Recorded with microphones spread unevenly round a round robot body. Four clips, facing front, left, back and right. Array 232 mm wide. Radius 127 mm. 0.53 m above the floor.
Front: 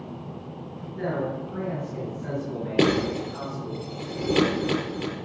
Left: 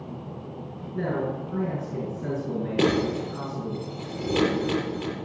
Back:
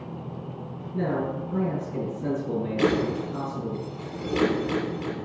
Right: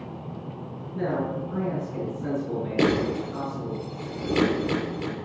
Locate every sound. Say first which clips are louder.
0.9 s a man speaking: right 1 dB, back 1 dB; 170° left, 6.5 m
2.8 s breaking glass: even, front 3 dB; 15° right, 6.5 m